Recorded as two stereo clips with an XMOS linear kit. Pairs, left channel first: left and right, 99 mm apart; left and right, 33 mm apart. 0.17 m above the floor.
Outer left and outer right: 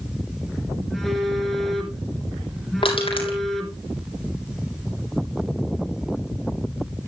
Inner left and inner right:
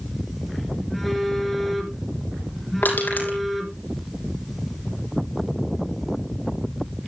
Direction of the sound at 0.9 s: Centre (ahead or behind).